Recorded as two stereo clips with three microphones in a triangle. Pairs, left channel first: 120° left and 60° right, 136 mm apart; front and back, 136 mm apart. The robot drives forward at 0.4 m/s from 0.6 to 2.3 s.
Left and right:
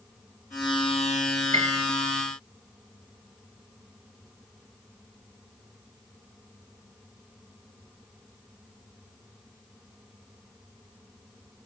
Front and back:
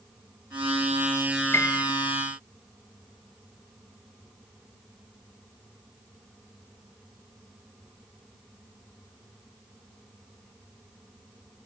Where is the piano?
70° right, 1.0 m; by 1.8 s 75° right, 1.0 m.